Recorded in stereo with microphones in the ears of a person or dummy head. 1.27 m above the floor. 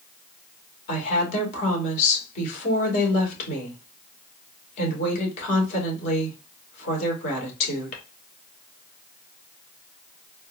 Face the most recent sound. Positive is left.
turn(degrees=50)  # may be behind; listen again after turning